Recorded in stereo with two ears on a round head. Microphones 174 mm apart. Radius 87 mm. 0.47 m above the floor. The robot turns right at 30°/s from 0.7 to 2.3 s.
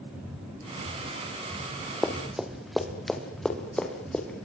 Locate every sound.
2.0 s running footsteps: 5° left (ahead or behind), 3 m